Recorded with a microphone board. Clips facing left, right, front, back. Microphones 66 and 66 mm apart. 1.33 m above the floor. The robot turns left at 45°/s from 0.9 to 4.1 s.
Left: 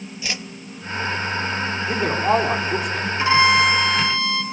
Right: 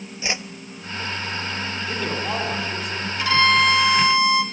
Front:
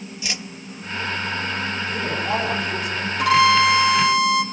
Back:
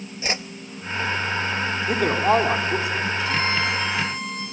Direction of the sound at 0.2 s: 145° right.